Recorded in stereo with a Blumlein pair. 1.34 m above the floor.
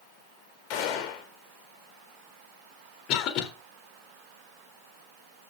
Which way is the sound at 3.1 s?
35° left.